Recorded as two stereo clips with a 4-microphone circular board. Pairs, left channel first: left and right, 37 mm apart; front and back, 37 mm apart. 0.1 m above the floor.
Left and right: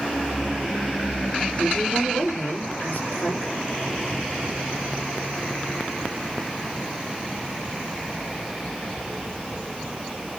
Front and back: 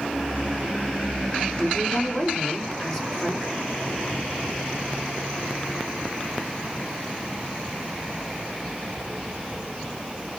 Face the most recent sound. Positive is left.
turn(degrees=60)